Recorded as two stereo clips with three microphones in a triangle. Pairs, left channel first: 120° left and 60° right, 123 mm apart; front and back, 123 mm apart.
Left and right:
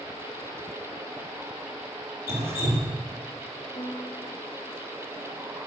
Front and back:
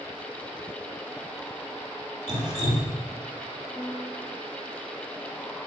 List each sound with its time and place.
2.3 s dripping: 130° right, 4.5 m
3.8 s a piano: 85° left, 2.5 m